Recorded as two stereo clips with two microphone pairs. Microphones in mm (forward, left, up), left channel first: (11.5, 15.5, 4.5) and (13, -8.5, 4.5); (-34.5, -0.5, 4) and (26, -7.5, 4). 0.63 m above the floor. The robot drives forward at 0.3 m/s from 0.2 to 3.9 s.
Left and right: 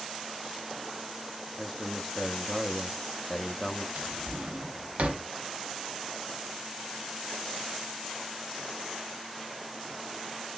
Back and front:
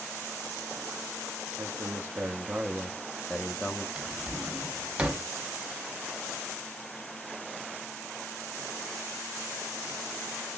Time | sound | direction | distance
1.6 | a man speaking | 10° left | 0.7 m
4.0 | a drawer | 80° right | 0.8 m